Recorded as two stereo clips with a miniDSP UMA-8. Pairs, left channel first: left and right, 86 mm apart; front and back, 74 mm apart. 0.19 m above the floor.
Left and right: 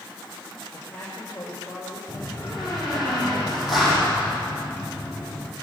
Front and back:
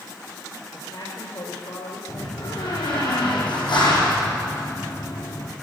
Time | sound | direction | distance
0.7 | a man speaking | 15° left | 5.5 m
2.1 | a door slam | straight ahead | 6 m